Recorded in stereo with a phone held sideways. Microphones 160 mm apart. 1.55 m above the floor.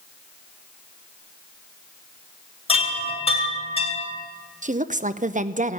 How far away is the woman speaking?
About 0.5 m.